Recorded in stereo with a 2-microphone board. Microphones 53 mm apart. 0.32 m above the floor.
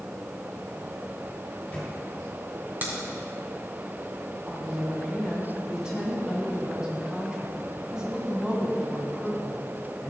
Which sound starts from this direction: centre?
A woman speaking, at 4.5 s.